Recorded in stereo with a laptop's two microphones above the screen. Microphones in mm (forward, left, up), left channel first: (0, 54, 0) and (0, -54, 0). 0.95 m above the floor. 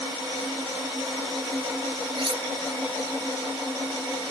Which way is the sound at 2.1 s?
55° right (ahead or behind).